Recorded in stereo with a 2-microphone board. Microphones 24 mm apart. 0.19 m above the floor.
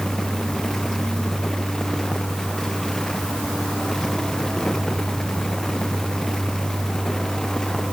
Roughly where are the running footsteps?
I don't hear running footsteps.